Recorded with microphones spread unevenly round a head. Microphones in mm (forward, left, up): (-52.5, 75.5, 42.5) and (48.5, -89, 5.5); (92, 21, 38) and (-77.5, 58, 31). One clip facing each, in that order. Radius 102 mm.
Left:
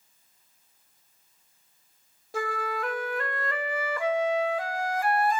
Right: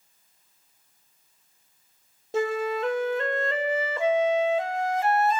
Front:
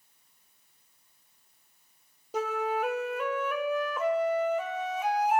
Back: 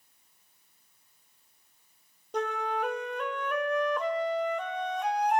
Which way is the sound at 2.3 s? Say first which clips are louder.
Right 6 dB, front 1 dB; 100° right.